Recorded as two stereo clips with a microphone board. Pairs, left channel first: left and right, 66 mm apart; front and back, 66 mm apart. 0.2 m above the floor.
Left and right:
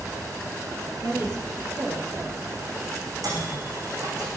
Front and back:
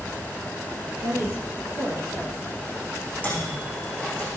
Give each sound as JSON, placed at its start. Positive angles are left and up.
{"t": 1.0, "sound": "a woman speaking", "azimuth_deg": -40, "distance_m": 6.0}
{"t": 3.2, "sound": "a microwave", "azimuth_deg": -65, "distance_m": 8.5}